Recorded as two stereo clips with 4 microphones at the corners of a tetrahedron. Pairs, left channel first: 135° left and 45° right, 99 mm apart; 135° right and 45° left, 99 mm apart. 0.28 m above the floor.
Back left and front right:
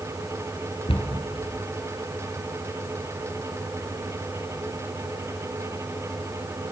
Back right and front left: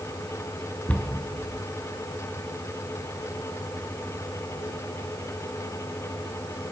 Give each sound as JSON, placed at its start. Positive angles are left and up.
{"t": 0.9, "sound": "a cupboard door", "azimuth_deg": 150, "distance_m": 3.5}